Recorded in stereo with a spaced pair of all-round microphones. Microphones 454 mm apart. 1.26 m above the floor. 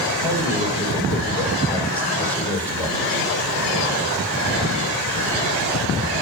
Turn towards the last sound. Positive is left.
turn(degrees=5)  # may be behind; listen again after turning